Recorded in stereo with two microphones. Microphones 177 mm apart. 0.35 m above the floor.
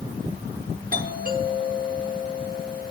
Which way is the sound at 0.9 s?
50° right (ahead or behind).